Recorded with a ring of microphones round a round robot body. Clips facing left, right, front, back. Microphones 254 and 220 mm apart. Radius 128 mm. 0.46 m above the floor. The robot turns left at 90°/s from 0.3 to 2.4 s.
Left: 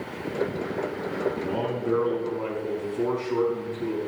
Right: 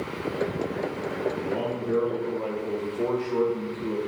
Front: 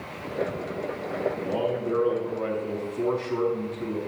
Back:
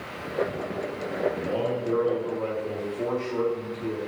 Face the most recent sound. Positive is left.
turn(degrees=40)